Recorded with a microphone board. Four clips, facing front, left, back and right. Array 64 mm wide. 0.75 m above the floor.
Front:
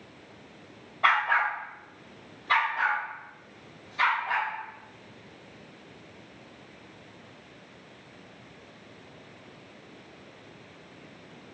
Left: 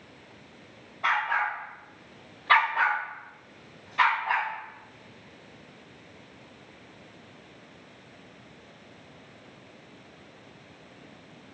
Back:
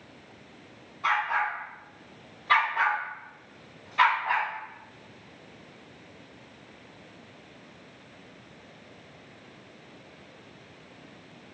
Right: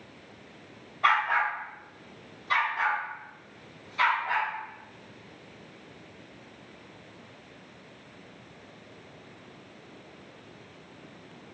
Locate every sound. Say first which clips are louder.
1.0 s a dog barking: right 2 dB, front 3 dB; 5° right, 1.4 m; by 4.5 s 140° left, 2.5 m